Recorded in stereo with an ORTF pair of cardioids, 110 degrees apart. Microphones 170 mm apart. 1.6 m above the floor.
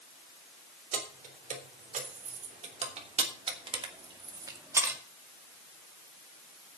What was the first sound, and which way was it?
Keys jangling, 55° right.